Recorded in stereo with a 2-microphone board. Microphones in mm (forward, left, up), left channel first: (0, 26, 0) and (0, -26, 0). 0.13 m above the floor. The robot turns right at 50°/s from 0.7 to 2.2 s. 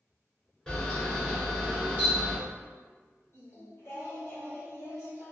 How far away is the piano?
I don't hear a piano.